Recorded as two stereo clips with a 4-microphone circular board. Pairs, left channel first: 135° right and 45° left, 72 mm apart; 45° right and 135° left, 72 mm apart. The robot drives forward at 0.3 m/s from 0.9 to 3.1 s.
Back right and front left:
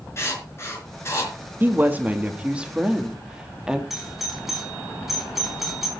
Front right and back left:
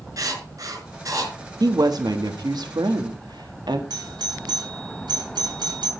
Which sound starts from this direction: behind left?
A doorbell, at 3.9 s.